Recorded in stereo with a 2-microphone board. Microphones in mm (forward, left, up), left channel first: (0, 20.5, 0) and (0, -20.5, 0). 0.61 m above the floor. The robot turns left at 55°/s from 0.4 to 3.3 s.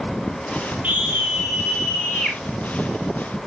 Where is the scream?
135° right, 2 m; by 2.4 s 140° left, 2 m.